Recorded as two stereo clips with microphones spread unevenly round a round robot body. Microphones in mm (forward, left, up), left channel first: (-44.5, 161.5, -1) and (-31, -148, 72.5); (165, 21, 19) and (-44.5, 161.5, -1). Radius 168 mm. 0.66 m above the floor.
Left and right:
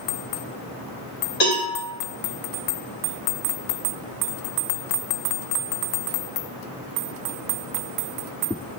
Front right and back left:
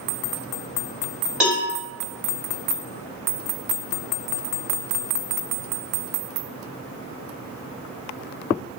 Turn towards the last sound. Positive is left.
turn(degrees=65)